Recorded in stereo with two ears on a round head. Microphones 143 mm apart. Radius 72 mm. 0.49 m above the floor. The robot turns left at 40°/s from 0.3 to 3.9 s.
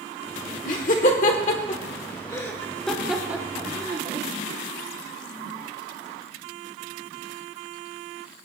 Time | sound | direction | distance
0.7 | laughter | 50° left (ahead or behind) | 1.2 m